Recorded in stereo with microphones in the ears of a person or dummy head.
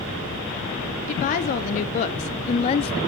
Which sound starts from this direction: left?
A woman speaking, at 1.1 s.